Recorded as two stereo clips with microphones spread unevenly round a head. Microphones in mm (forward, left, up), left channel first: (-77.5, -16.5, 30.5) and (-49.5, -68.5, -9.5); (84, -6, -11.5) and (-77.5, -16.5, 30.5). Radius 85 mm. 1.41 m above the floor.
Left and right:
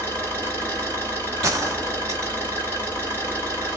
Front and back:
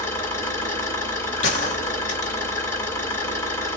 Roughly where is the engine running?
Left.